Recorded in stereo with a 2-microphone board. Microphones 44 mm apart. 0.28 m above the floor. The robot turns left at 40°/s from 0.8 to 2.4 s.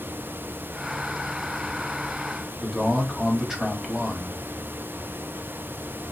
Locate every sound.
2.6 s a man speaking: 10° right (ahead or behind), 1.1 m